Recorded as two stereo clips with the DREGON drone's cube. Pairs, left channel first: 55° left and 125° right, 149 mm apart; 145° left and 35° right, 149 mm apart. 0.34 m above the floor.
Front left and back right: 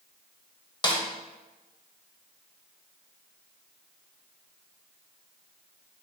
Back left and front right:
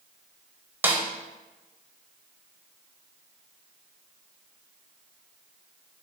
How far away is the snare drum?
About 0.6 m.